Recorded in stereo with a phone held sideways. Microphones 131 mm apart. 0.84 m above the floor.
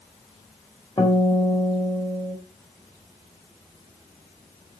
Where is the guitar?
30° left (ahead or behind), 3 m.